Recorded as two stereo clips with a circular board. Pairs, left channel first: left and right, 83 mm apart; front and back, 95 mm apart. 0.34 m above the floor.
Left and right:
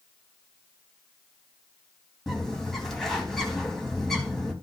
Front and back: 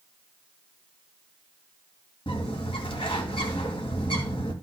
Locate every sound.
2.3 s a bird: straight ahead, 3 m